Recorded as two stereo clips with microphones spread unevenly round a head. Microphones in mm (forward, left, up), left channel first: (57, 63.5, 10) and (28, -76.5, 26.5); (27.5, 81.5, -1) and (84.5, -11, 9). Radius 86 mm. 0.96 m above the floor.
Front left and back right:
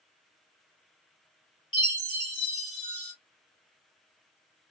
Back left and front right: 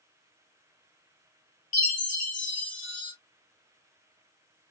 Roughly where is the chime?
Behind left.